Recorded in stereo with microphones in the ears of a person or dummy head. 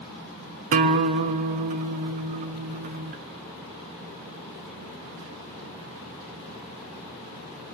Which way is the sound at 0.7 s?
40° right (ahead or behind).